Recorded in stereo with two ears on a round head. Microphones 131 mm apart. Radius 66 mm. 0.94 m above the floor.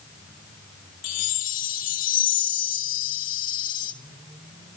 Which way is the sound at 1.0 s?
65° left (ahead or behind).